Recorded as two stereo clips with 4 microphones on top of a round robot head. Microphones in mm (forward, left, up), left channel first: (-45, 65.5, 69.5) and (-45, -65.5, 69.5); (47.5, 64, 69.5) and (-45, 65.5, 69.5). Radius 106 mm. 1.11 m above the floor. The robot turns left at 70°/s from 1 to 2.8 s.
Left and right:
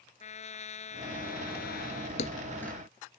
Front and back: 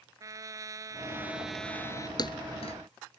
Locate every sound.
0.2 s a trumpet: 125° left; by 2.1 s 50° left
2.2 s a thud: 40° left; by 2.8 s straight ahead